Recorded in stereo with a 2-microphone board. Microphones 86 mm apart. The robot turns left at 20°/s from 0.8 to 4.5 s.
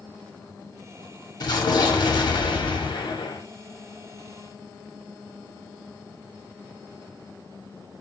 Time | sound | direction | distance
1.4 | an explosion | 125° left | 0.8 m